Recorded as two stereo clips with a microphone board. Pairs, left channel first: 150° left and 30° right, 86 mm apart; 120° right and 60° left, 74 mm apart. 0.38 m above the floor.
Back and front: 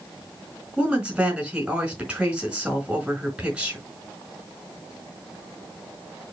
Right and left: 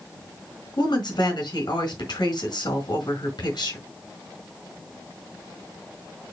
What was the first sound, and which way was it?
A woman speaking, 110° right.